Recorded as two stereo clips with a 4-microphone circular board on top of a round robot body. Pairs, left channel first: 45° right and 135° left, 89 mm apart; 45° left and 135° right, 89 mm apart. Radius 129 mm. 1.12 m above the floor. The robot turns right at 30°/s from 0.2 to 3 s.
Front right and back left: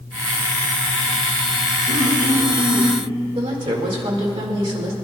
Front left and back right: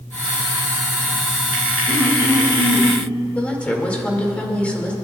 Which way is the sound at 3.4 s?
120° left.